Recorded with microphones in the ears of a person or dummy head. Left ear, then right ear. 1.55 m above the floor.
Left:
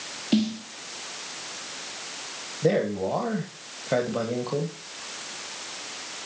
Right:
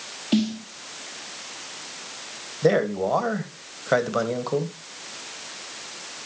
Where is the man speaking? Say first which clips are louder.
Right 3 dB; 45° right (ahead or behind), 1.7 m.